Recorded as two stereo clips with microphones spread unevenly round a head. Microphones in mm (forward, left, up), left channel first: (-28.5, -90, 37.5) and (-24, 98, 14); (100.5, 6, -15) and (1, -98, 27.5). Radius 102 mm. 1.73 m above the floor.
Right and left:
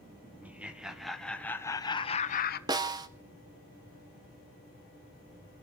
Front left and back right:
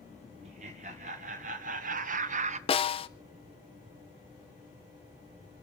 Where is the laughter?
170° left, 2.5 m; by 2.6 s 115° right, 1.2 m.